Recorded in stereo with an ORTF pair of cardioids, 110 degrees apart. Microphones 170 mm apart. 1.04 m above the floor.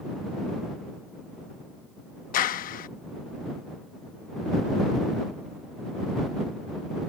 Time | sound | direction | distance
2.3 | a clap | 55° left | ?